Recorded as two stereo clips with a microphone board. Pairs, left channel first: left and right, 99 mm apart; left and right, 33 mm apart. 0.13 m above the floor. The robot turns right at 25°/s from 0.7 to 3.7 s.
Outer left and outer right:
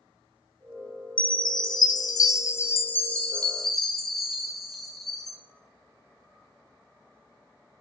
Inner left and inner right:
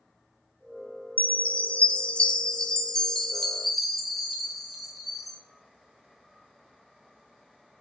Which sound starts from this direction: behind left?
A chime, at 1.2 s.